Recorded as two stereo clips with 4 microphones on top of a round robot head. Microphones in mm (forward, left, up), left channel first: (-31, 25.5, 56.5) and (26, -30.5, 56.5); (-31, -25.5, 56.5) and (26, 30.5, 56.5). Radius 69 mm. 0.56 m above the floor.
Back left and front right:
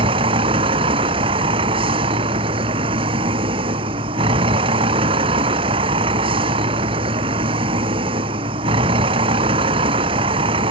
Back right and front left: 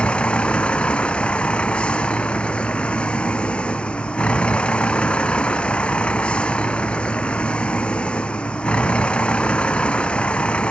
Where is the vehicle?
55° right.